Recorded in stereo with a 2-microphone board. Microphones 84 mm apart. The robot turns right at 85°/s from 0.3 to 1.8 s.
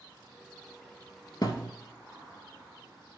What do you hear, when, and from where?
1.4 s a thud: 50° left (ahead or behind), 1.1 m; by 1.7 s 45° left (ahead or behind), 1.1 m